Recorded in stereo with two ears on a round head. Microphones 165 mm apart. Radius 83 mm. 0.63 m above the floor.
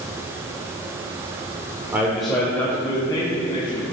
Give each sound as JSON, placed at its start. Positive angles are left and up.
{"t": 1.9, "sound": "a man speaking", "side_deg": -10, "distance_m": 1.6}